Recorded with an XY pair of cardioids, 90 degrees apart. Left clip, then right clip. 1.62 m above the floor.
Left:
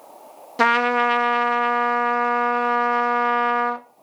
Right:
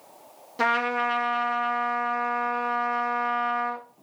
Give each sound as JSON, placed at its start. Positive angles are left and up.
{"t": 0.6, "sound": "a trumpet", "azimuth_deg": 55, "distance_m": 0.9}